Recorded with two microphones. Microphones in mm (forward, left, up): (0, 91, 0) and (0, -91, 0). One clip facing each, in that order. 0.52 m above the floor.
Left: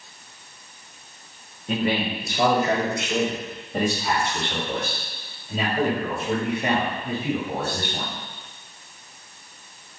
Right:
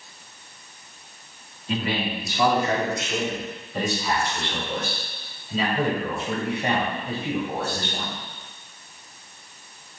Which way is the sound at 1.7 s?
55° left (ahead or behind).